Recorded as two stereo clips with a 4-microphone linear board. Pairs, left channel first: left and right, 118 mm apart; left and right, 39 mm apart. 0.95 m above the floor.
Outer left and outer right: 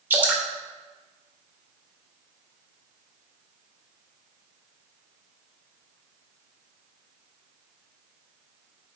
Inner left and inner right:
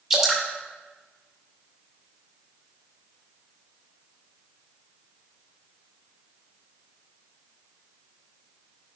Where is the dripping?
15° right (ahead or behind), 2 m.